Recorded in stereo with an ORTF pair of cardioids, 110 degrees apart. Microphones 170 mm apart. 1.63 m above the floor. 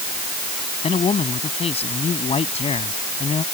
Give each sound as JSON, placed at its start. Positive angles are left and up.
{"t": 0.8, "sound": "a man speaking", "azimuth_deg": 35}